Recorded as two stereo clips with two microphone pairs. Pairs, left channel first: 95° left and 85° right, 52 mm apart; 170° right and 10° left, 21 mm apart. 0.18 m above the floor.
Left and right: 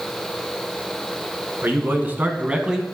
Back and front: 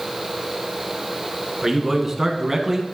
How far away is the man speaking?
About 2.0 m.